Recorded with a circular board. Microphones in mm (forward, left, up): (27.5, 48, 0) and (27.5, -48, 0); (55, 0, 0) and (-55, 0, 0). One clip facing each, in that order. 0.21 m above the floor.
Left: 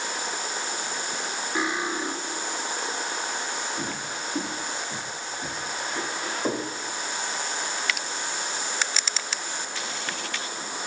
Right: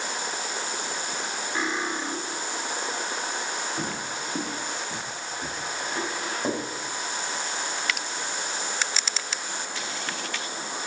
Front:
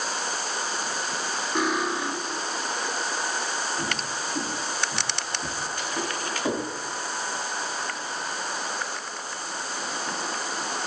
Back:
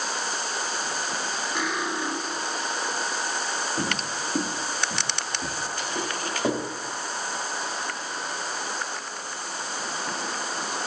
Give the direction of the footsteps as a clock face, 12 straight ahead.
5 o'clock.